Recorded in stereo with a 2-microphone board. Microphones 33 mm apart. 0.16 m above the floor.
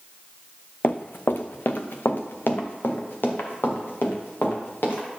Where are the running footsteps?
65° left (ahead or behind), 0.6 m; by 5.1 s 75° left (ahead or behind), 3.5 m.